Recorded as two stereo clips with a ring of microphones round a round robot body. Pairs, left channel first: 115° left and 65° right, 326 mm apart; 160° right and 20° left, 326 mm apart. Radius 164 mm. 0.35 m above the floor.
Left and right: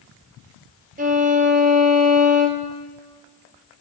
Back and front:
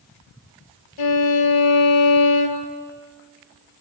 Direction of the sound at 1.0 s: 135° right.